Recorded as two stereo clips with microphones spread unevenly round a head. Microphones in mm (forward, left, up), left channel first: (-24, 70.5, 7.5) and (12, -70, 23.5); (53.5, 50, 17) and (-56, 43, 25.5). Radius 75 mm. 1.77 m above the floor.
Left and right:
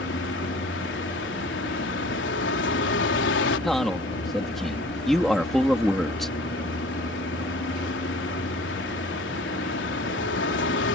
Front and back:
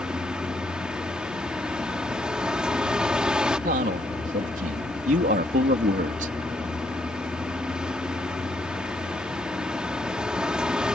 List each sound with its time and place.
0.0 s a vehicle: 105° left
3.6 s a man speaking: 165° right